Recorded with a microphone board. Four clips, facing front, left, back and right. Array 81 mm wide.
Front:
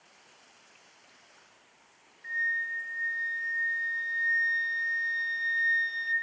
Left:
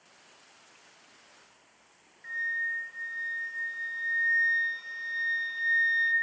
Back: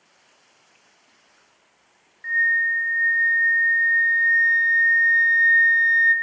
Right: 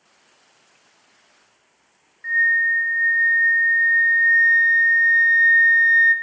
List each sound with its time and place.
2.2 s a flute: 140° right, 1.0 m